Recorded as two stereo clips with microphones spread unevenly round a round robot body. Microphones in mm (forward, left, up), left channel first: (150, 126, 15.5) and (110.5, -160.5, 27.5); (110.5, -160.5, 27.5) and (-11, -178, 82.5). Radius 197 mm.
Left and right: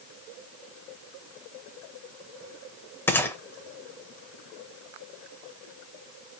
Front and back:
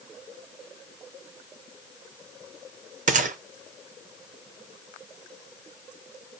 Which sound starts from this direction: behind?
A gunshot, at 3.1 s.